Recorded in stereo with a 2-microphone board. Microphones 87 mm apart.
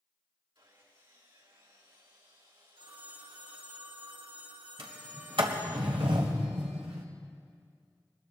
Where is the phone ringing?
70° right (ahead or behind), 1.6 m.